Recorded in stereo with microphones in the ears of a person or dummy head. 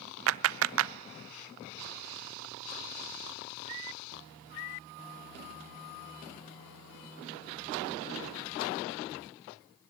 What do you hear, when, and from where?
0.3 s a clap: 65° right (ahead or behind), 0.5 m